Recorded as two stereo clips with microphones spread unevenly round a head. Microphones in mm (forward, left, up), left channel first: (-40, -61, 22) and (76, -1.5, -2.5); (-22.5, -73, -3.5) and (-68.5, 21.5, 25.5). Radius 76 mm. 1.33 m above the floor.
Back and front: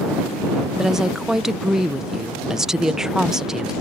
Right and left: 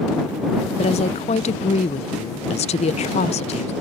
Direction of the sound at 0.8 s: 55° right.